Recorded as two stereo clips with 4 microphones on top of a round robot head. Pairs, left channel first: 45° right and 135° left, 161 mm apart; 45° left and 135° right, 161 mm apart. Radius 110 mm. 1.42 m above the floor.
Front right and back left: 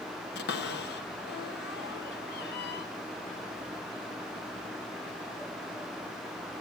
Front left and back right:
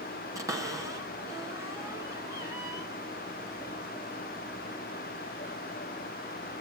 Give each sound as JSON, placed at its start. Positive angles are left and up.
{"t": 0.3, "sound": "a cupboard door", "azimuth_deg": -65, "distance_m": 3.0}